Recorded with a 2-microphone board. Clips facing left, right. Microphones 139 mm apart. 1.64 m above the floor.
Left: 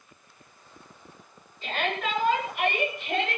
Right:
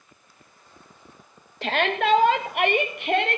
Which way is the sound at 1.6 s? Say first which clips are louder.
Right 7 dB; 80° right.